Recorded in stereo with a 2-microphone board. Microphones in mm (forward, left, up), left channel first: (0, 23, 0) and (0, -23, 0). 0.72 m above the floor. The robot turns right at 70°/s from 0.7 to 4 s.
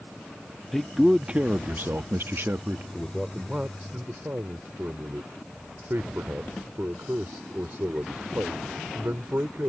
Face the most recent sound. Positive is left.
turn(degrees=-120)